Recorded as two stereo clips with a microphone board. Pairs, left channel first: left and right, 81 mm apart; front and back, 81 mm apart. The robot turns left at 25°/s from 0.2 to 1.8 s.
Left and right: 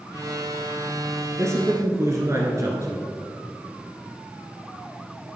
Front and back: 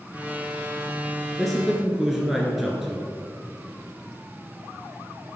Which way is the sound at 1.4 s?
85° right.